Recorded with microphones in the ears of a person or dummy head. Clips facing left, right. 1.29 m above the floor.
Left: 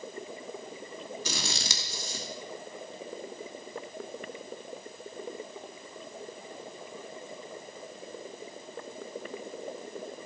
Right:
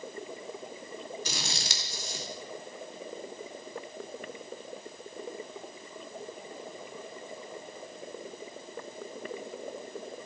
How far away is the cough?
No cough in this recording.